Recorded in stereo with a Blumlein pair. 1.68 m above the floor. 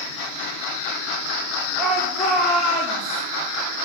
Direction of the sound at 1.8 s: Straight ahead.